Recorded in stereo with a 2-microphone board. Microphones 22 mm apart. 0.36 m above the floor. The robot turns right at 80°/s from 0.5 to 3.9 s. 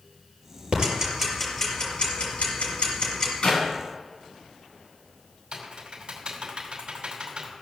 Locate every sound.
0.7 s ticking: 55° right (ahead or behind), 5.5 m; by 3.3 s 30° left (ahead or behind), 5.5 m
3.4 s a clap: 50° left (ahead or behind), 3 m; by 3.6 s 35° left (ahead or behind), 3 m
5.5 s typing on a keyboard: 55° right (ahead or behind), 2.5 m